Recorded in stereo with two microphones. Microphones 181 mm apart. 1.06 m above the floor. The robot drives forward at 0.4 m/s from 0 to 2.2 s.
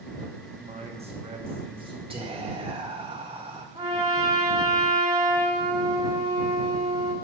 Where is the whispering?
30° right (ahead or behind), 1.4 m.